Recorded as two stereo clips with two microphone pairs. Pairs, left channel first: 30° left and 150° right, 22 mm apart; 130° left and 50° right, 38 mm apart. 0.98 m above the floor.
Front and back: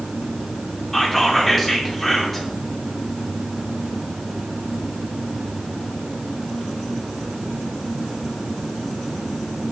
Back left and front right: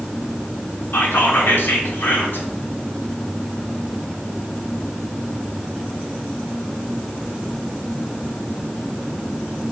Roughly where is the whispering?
Behind left.